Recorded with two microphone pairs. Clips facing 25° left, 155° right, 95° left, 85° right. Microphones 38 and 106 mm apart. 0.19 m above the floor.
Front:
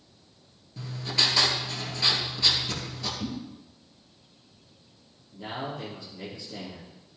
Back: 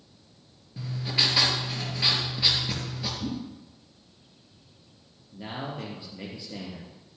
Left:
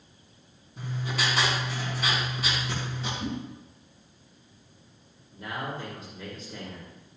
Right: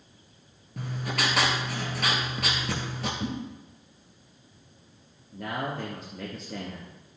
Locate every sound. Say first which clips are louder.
0.8 s writing: even, right 1 dB; 80° right, 3 m
3.2 s a whoosh: back 2 dB, even; 35° right, 5 m
5.3 s a man speaking: front 1 dB, right 3 dB; 90° right, 3.5 m